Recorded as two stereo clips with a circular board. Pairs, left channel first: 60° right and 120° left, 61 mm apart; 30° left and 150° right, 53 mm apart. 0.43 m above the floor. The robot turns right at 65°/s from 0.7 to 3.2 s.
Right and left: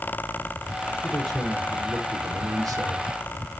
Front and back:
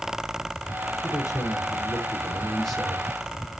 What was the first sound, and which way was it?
A man speaking, 5° left.